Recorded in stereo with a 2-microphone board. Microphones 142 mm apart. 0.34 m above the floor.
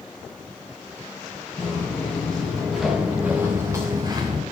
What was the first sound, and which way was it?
Footsteps, 10° left (ahead or behind).